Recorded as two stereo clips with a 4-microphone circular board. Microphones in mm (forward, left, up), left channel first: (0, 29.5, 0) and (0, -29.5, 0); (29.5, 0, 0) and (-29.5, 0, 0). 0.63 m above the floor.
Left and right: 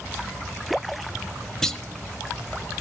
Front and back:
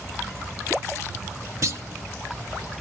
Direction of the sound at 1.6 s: 170° left.